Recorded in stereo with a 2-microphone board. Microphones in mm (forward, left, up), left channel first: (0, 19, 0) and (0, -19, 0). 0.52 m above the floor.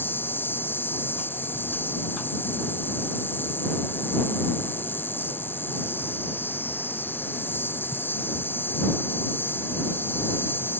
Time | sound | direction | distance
0.0 | an insect | 70° left (ahead or behind) | ?